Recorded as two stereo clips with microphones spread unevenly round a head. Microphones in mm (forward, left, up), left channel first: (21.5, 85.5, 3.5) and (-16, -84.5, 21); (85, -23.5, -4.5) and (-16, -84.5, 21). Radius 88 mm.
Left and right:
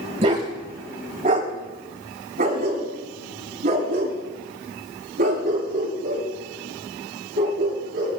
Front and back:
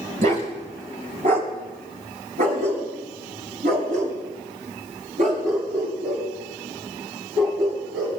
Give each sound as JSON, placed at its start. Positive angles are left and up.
{"t": 0.2, "sound": "a dog barking", "azimuth_deg": -155, "distance_m": 2.5}